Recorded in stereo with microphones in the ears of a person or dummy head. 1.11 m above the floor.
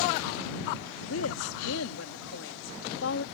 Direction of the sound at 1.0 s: 75° left (ahead or behind).